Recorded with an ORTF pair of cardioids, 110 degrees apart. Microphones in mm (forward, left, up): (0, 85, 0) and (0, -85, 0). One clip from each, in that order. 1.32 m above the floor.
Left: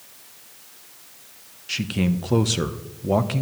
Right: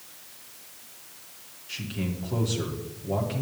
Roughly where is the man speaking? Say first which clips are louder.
Left 9 dB; ahead left.